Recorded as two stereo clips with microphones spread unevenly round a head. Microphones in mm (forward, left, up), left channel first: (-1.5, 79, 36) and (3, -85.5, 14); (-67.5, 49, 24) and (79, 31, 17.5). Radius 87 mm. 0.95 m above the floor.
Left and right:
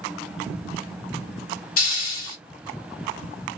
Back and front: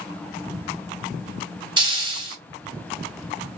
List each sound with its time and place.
1.8 s a hiss: 50° left, 1.4 m